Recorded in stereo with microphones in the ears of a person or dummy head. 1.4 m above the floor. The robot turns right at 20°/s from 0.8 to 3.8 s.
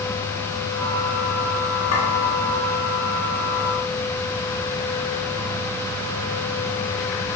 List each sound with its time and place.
1.9 s a clink: 80° left, 3 m